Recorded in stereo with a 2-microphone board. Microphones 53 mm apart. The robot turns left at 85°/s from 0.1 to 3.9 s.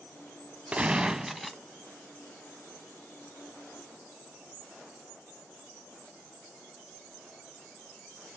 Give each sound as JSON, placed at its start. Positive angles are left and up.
{"t": 0.7, "sound": "a gunshot", "side_deg": -25, "distance_m": 0.6}